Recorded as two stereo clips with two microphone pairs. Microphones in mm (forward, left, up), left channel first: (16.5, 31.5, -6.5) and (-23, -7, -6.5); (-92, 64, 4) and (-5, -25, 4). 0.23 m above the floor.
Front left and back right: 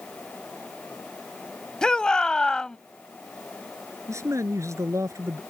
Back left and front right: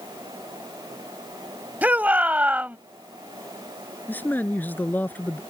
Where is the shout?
10° left.